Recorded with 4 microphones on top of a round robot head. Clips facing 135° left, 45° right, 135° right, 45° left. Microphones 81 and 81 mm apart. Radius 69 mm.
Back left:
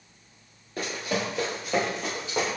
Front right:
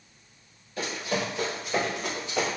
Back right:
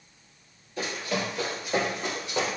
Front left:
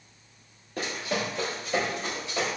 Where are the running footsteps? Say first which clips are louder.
Even, even; 90° left, 1.3 m; by 2.5 s 165° left, 2.5 m.